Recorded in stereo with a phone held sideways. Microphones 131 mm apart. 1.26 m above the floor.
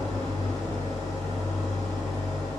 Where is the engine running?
20° left (ahead or behind), 1.7 m.